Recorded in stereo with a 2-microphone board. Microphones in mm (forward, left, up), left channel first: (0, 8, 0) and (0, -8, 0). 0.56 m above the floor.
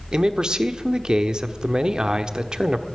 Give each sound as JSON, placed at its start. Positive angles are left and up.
{"t": 0.1, "sound": "a man speaking", "side_deg": -55, "distance_m": 1.0}